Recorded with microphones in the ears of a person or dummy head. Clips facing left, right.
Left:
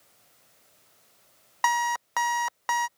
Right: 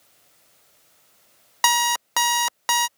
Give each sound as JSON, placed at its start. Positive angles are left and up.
{"t": 1.6, "sound": "an alarm clock", "side_deg": -50}